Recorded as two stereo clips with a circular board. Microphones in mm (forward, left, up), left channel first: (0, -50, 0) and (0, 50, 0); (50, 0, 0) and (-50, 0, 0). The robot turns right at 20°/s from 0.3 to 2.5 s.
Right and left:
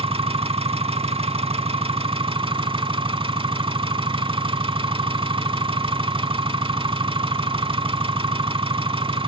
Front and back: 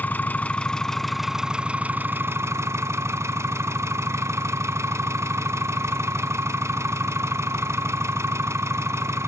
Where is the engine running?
75° left, 0.8 m; by 9.3 s 115° left, 0.8 m.